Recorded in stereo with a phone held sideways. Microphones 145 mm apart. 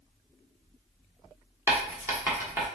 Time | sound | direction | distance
1.7 | writing | 15° right (ahead or behind) | 1.2 m